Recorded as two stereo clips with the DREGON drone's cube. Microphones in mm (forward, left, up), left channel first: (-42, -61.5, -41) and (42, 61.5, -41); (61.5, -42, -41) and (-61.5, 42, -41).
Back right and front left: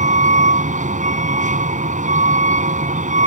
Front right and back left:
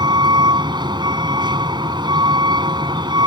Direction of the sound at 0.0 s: 85° left.